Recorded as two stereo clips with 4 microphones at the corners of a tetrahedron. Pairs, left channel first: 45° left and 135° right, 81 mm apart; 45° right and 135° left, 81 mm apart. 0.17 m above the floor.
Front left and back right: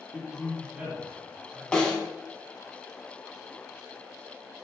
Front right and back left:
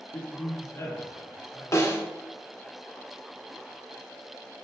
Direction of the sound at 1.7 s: 30° right.